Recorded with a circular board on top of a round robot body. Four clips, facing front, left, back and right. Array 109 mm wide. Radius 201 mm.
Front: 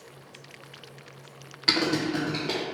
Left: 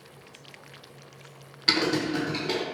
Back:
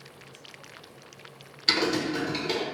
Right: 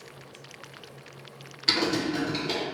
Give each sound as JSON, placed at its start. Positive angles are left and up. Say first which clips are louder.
{"t": 1.7, "sound": "typing on a keyboard", "louder": "left 1 dB, front 1 dB", "azimuth_deg": 20, "distance_m": 0.8}